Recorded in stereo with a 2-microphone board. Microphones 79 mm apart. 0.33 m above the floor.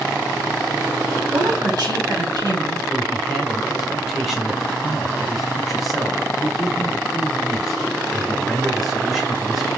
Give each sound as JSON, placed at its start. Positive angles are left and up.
{"t": 1.3, "sound": "a woman speaking", "side_deg": -65, "distance_m": 3.0}
{"t": 2.9, "sound": "a man speaking", "side_deg": -5, "distance_m": 1.3}